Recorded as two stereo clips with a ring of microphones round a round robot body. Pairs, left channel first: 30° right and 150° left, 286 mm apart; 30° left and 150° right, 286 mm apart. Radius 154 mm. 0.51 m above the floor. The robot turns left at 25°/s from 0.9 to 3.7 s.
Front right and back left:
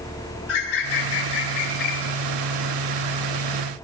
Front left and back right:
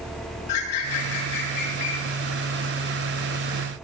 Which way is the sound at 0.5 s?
15° left.